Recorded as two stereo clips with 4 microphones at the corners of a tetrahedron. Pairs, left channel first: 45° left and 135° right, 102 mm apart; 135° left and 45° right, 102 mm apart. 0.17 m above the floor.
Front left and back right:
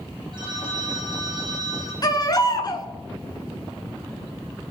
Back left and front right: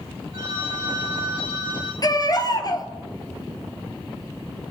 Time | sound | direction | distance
0.3 | a phone ringing | 90° right | 5 m
2.0 | a baby crying | 90° left | 1.6 m